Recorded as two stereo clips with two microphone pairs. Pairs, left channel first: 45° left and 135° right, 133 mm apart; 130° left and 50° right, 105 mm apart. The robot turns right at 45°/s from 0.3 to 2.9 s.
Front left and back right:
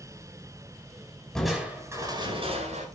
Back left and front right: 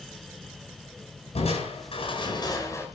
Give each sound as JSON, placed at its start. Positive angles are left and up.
{"t": 1.4, "sound": "crushing", "azimuth_deg": 130, "distance_m": 5.0}